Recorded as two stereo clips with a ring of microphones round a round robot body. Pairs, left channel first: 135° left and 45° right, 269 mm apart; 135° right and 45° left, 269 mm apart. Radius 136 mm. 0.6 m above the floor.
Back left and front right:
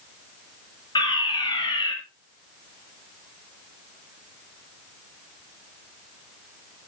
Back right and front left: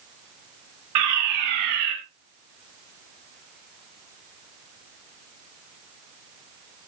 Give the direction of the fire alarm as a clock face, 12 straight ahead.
10 o'clock.